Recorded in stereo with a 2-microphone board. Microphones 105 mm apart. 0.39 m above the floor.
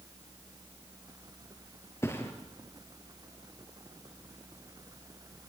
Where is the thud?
25° left (ahead or behind), 3 m.